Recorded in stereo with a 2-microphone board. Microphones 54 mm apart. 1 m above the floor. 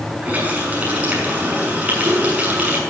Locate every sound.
0.2 s a running tap: 25° right (ahead or behind), 6.5 m